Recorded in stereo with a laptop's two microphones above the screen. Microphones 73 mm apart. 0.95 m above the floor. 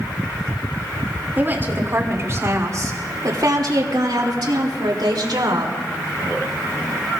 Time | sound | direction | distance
1.4 | a woman speaking | 25° right (ahead or behind) | 3 m